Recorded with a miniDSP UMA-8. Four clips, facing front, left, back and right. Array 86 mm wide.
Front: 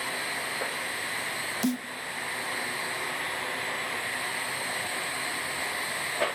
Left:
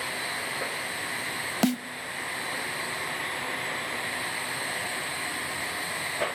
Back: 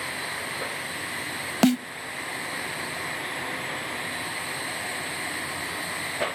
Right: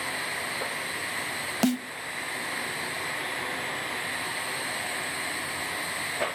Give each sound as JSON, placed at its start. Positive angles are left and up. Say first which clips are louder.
{"t": 1.6, "sound": "a snare drum", "louder": "even, back 9 dB", "azimuth_deg": 180, "distance_m": 0.6}